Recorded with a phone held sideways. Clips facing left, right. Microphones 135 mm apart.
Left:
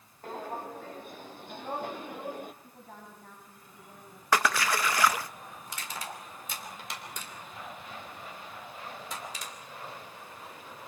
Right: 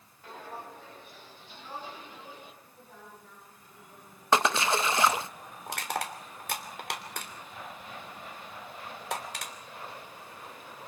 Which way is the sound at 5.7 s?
75° right (ahead or behind).